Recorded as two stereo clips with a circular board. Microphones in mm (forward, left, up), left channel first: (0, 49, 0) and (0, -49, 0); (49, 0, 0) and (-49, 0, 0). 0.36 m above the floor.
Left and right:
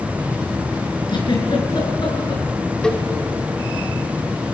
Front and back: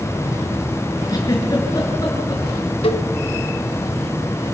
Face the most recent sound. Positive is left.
turn(degrees=10)